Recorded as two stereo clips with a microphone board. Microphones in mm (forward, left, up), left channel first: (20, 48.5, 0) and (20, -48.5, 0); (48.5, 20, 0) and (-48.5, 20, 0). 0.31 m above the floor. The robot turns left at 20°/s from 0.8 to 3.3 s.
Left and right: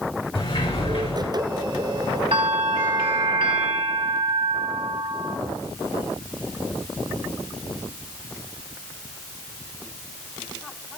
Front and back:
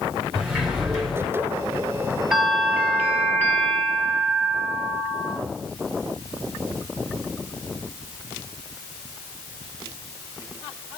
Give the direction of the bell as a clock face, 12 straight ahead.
3 o'clock.